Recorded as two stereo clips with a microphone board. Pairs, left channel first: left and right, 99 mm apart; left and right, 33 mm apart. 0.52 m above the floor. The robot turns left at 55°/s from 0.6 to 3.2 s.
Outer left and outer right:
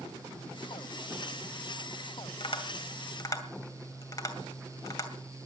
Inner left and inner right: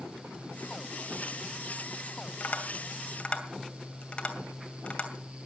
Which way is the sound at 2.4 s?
70° left (ahead or behind).